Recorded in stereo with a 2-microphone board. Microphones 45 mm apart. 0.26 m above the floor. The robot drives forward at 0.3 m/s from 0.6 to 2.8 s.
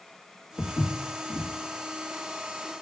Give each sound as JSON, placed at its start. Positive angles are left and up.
{"t": 0.6, "sound": "footsteps", "side_deg": 75, "distance_m": 1.0}